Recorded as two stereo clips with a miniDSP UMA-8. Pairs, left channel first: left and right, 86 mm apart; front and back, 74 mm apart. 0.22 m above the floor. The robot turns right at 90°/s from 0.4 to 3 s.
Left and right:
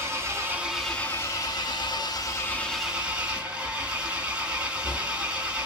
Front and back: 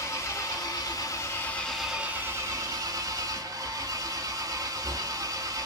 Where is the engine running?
40° right, 0.7 m; by 5.7 s 165° right, 0.7 m.